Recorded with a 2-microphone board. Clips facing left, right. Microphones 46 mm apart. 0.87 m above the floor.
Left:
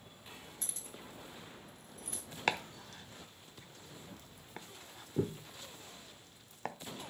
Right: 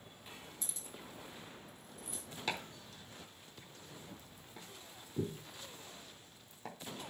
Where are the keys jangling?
50° left (ahead or behind), 2.0 m; by 2.2 s 65° left (ahead or behind), 2.5 m.